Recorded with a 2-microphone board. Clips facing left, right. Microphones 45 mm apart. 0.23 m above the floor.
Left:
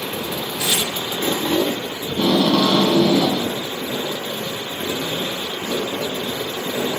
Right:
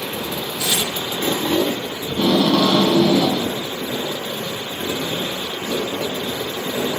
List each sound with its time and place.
0.6 s tearing paper: 30° left (ahead or behind), 1.6 m
2.1 s tape being pulled: 10° right (ahead or behind), 0.5 m